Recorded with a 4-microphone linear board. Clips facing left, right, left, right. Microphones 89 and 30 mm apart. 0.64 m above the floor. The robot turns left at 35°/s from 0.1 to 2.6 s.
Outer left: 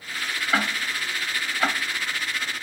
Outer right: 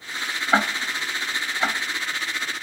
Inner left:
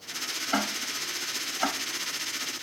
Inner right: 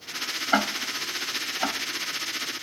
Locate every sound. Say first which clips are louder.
0.5 s ticking: outer right 4 dB, inner right 5 dB; 35° right (ahead or behind), 0.7 m; by 1.8 s 5° left (ahead or behind), 0.7 m